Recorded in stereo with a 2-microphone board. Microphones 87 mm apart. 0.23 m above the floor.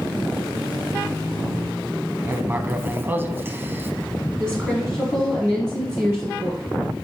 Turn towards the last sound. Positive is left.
turn(degrees=-20)  # may be behind; listen again after turning